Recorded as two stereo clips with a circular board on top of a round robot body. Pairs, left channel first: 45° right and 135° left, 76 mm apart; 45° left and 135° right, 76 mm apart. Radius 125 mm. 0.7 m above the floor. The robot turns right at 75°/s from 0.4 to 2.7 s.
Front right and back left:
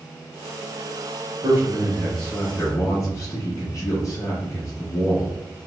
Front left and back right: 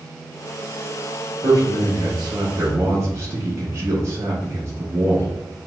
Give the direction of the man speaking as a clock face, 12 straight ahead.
6 o'clock.